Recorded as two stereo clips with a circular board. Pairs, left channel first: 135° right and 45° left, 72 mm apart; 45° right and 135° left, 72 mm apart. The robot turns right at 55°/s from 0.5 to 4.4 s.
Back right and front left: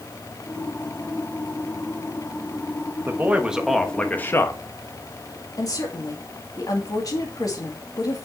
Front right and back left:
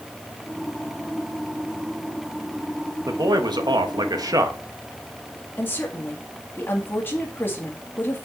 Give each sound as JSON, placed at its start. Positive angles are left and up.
{"t": 3.1, "sound": "a man speaking", "azimuth_deg": 100, "distance_m": 1.1}
{"t": 5.6, "sound": "a woman speaking", "azimuth_deg": -105, "distance_m": 2.0}